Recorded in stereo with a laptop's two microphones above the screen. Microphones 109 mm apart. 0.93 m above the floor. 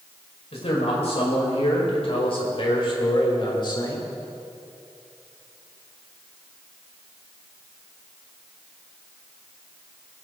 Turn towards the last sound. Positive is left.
turn(degrees=40)  # may be behind; listen again after turning